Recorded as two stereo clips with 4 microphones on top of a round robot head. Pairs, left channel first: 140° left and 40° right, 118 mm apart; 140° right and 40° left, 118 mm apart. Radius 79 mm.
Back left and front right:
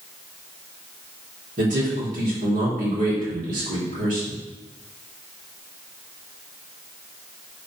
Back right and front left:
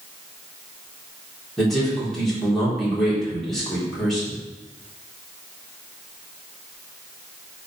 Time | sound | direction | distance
1.6 | a man speaking | 50° right | 3.5 m